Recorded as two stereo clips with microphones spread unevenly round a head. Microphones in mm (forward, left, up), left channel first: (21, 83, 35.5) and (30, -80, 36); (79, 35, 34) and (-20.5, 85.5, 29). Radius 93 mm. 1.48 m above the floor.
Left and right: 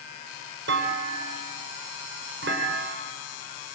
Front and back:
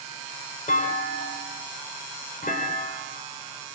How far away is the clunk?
About 5 m.